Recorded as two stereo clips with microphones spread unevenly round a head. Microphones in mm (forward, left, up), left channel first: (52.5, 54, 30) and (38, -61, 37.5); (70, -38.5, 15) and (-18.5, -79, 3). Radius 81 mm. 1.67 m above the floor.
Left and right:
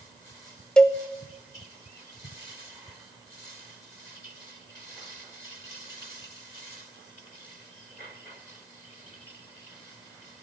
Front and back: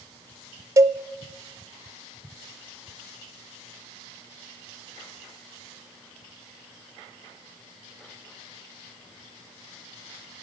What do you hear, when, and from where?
0.8 s a cowbell: 170° left, 0.8 m